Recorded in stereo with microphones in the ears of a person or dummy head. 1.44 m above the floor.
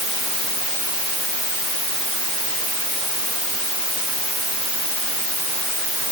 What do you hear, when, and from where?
Only background noise.